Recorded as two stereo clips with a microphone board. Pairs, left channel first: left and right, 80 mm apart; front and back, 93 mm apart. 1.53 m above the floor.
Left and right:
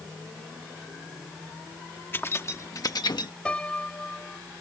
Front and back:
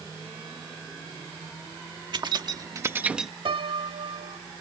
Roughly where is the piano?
Behind.